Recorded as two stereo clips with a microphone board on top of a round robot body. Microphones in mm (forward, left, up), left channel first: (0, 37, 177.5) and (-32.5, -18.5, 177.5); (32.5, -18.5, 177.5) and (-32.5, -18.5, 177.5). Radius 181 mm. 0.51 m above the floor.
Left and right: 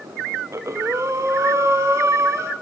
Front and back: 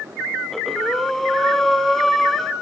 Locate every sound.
0.5 s breathing: 85° right, 2.5 m